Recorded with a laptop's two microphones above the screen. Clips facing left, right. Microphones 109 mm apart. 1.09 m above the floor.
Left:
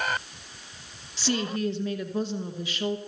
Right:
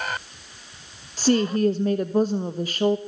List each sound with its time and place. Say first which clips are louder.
1.2 s a woman speaking: right 8 dB; 50° right (ahead or behind), 1.0 m